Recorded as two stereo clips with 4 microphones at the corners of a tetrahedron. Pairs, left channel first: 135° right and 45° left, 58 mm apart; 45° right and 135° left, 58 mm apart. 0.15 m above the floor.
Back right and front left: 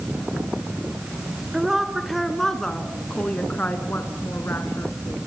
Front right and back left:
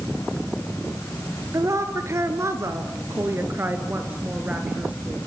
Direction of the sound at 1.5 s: 125° left.